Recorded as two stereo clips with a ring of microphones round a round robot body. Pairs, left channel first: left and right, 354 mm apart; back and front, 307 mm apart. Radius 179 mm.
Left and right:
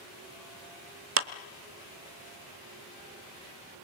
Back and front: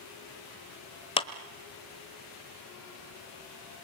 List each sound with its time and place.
1.2 s a clap: 115° right, 1.1 m